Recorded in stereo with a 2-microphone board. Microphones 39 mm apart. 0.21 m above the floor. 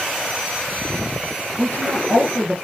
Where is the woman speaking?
55° left (ahead or behind), 8 m.